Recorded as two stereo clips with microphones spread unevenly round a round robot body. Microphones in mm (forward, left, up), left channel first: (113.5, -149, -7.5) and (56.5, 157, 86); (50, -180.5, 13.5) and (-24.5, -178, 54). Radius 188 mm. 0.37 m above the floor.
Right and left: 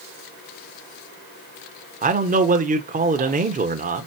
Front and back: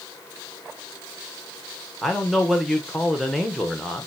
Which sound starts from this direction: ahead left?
A man speaking, at 2.0 s.